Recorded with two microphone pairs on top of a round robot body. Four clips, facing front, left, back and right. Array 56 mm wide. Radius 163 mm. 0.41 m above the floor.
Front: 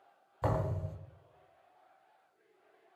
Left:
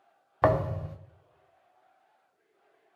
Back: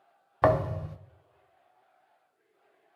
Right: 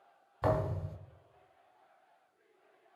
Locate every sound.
0.4 s a thud: 135° left, 0.5 m